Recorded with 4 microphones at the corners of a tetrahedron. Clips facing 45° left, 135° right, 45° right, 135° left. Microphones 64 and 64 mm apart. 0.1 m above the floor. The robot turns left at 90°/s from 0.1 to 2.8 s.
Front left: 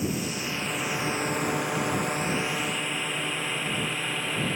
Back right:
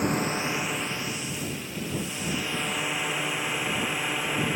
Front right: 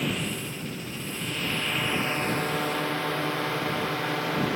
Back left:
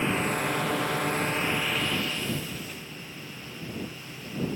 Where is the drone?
165° right; by 4.6 s 55° right.